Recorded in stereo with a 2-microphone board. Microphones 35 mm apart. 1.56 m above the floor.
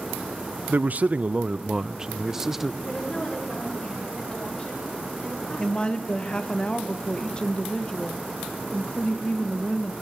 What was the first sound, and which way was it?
A man speaking, 55° right (ahead or behind).